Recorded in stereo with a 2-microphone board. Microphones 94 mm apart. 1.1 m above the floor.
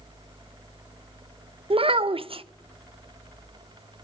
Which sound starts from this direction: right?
A child speaking, at 1.7 s.